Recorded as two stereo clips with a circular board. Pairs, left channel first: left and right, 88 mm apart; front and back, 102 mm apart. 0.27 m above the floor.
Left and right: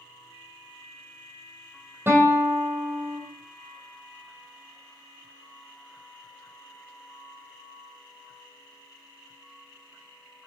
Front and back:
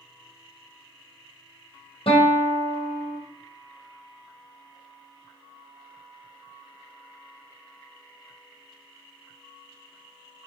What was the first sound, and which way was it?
A guitar, 25° right.